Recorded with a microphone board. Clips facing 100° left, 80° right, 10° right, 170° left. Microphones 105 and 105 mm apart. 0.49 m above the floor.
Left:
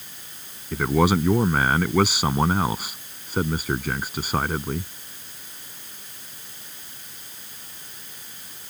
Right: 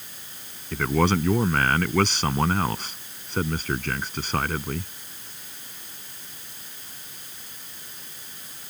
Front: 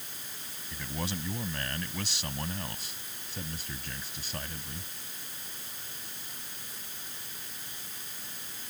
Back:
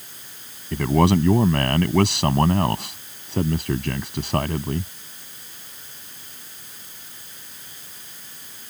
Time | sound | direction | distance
0.7 | a man speaking | straight behind | ?